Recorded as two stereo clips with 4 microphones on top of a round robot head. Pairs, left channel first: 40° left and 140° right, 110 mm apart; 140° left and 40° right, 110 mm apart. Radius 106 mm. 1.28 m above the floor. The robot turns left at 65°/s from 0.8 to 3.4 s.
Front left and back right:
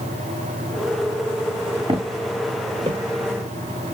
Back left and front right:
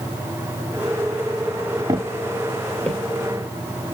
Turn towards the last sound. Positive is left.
turn(degrees=-170)